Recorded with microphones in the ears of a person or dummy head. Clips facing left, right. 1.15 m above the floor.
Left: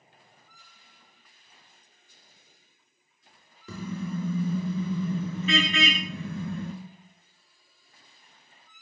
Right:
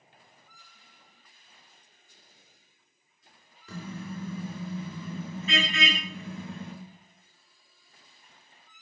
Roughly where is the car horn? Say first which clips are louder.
Left 5 dB; left.